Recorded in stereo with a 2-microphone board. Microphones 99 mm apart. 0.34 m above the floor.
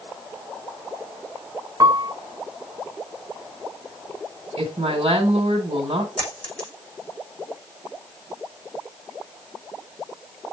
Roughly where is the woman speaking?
Right.